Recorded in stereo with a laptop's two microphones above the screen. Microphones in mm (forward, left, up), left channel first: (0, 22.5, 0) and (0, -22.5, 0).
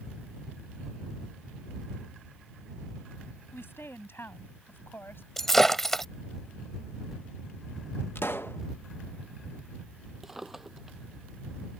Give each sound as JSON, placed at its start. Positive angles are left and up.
{"t": 3.5, "sound": "a woman speaking", "side_deg": 70}
{"t": 5.4, "sound": "breaking glass", "side_deg": 5}
{"t": 8.2, "sound": "a pop", "side_deg": 65}
{"t": 10.2, "sound": "a drawer", "side_deg": -10}